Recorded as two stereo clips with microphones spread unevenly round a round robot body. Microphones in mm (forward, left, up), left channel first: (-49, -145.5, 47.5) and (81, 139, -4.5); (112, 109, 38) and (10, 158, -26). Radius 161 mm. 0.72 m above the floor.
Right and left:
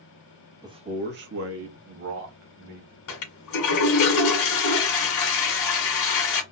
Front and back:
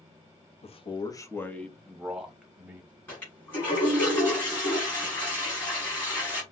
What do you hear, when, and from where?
0.6 s a man speaking: 15° left, 0.8 m; by 3.0 s 90° left, 2.0 m
3.1 s a toilet flushing: 130° right, 1.6 m